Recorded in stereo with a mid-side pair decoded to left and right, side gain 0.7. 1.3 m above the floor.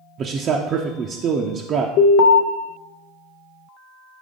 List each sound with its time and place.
0.2 s a man speaking: 40° right, 0.6 m
2.0 s an alarm: 70° left, 0.8 m